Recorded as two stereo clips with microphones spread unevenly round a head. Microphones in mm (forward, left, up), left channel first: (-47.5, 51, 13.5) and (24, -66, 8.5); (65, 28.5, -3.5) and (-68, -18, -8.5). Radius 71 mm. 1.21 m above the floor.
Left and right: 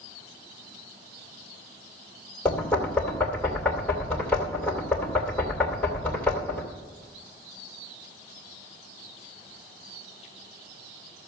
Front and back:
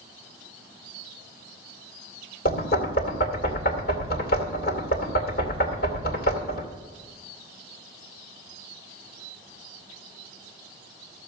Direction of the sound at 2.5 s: 40° left.